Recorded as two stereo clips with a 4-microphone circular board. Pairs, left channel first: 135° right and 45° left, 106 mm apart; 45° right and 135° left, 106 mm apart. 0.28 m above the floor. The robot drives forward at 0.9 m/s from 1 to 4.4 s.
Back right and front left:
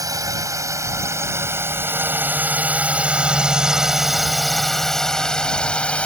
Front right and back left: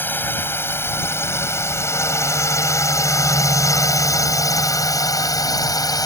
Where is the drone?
15° left; by 6.1 s 65° right.